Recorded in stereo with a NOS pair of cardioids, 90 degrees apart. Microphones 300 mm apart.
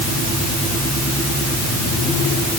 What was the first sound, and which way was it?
Only background noise.